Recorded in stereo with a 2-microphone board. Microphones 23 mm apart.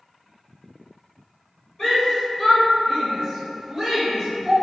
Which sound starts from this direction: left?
A shout, at 1.8 s.